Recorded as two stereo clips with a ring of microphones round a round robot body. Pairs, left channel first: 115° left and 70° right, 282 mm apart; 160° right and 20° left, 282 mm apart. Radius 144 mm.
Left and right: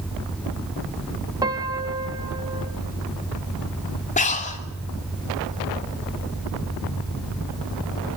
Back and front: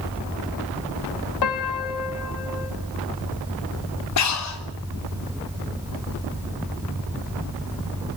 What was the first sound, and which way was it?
A piano, 145° right.